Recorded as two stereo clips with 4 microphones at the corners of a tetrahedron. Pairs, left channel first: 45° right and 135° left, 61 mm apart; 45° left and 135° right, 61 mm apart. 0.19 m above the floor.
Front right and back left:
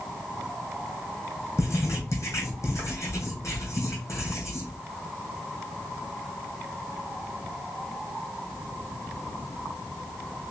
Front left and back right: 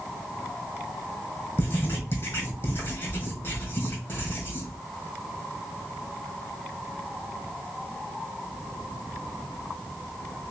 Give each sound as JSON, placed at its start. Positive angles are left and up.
{"t": 1.6, "sound": "writing", "azimuth_deg": -5, "distance_m": 2.5}